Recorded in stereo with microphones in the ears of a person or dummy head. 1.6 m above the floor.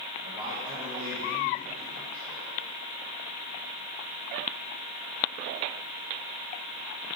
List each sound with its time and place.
0.2 s a man speaking: 20° right (ahead or behind), 1.7 m